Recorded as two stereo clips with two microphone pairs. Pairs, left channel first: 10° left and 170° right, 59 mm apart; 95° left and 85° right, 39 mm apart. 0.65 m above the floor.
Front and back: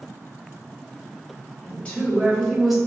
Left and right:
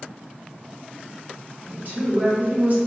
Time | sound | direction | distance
1.6 | a woman speaking | 50° right | 1.8 m